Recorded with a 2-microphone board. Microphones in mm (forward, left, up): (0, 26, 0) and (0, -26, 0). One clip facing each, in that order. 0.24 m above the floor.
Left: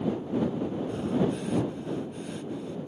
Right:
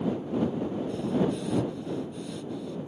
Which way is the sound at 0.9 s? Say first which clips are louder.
Even; 30° left (ahead or behind).